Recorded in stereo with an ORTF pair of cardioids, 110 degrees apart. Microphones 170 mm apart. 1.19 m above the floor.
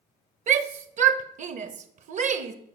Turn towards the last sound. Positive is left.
turn(degrees=-45)